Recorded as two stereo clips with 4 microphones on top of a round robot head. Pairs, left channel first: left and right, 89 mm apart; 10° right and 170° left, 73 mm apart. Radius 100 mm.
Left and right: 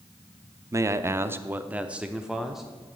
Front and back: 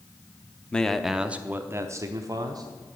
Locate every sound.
0.7 s a man speaking: 75° right, 0.8 m; by 2.6 s 175° right, 1.2 m